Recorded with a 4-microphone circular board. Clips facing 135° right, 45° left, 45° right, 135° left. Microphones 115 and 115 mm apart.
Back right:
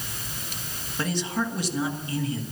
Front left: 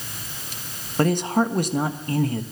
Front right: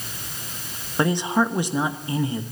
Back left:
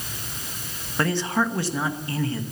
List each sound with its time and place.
1.0 s a man speaking: 25° left, 1.3 m